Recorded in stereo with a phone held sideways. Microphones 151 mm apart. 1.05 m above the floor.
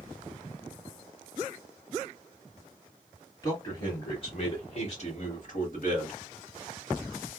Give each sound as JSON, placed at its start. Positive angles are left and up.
{"t": 3.4, "sound": "a man speaking", "side_deg": 25, "distance_m": 2.0}